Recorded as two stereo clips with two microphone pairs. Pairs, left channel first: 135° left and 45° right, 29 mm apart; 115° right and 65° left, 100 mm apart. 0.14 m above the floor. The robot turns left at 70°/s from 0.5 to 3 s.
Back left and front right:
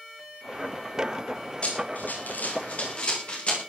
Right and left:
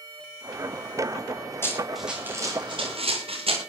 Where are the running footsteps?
Straight behind, 9.5 m; by 3.6 s 85° left, 8.5 m.